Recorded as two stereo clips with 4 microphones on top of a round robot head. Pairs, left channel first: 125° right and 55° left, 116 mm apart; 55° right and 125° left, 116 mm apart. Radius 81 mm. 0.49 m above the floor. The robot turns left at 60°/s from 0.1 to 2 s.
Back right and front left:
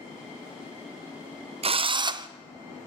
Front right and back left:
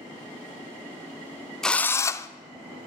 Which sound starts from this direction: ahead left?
A drill, at 1.6 s.